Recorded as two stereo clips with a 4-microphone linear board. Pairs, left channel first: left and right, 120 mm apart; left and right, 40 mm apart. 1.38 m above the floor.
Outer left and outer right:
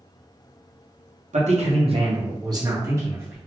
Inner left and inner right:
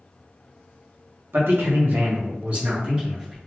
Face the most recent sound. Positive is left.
turn(degrees=-15)  # may be behind; listen again after turning